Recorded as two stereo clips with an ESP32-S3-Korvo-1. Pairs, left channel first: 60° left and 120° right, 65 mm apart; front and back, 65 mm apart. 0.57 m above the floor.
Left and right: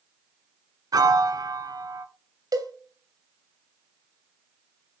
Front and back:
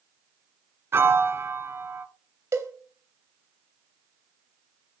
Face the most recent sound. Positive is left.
turn(degrees=-135)